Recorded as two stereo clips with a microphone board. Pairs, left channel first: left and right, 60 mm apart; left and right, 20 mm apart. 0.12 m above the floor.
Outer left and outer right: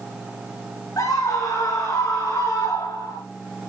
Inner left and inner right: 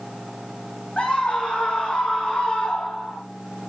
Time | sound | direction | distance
1.0 | a scream | 75° left (ahead or behind) | 5.5 m